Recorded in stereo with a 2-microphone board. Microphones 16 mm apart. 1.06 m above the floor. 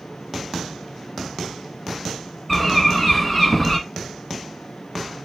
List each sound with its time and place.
2.5 s a bird: 5° left (ahead or behind), 1.4 m